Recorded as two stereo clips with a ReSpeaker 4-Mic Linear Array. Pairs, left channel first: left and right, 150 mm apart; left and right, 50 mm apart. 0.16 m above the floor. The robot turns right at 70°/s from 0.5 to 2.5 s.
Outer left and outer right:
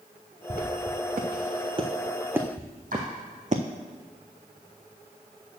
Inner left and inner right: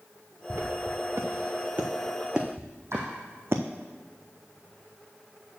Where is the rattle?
No rattle in this recording.